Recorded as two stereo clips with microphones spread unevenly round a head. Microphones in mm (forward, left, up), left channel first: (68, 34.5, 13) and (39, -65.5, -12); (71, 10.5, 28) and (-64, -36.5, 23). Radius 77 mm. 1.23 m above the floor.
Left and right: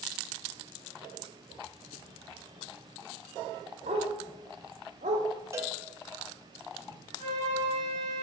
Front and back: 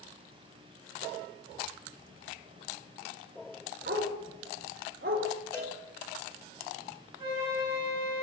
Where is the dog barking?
145° right, 1.0 m.